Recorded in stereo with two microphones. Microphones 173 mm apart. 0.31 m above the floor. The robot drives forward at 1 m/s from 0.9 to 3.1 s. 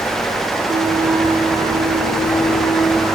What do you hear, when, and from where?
0.7 s a flute: 40° right (ahead or behind), 0.8 m; by 3.2 s 10° right (ahead or behind), 3 m